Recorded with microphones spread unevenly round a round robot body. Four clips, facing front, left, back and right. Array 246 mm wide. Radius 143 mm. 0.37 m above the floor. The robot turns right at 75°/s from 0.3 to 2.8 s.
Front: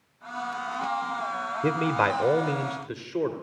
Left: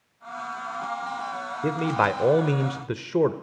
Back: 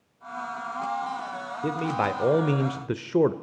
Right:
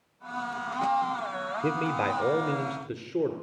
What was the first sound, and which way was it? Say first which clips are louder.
A man speaking: left 5 dB, front 2 dB; 25° left.